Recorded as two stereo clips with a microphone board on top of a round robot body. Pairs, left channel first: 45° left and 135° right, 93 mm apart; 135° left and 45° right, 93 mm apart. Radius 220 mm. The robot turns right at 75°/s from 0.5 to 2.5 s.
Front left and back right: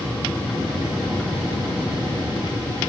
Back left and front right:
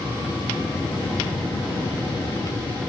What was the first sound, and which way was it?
Only background noise.